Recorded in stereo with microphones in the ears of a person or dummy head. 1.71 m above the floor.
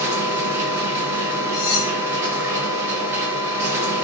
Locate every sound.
0.0 s a machine running: 15° right (ahead or behind), 2.5 m
1.5 s cutlery clinking: 25° left (ahead or behind), 1.7 m